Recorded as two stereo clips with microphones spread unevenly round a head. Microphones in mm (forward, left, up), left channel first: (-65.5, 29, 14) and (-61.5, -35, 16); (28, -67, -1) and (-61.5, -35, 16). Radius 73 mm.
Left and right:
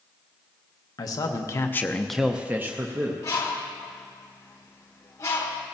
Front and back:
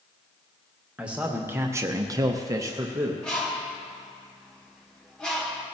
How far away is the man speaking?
About 1.1 m.